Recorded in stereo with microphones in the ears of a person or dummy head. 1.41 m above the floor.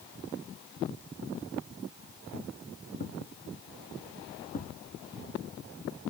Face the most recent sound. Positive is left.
turn(degrees=30)  # may be behind; listen again after turning